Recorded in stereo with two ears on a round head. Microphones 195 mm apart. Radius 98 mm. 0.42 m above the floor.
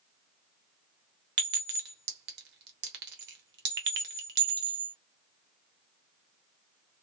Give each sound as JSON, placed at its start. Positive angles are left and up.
{"t": 1.4, "sound": "a clink", "side_deg": -50, "distance_m": 0.9}